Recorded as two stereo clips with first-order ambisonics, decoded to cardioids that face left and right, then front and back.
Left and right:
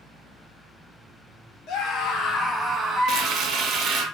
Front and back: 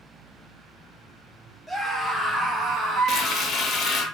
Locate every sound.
1.7 s a scream: 100° left, 0.9 m; by 4.1 s 110° right, 1.2 m
3.1 s frying: 50° right, 0.6 m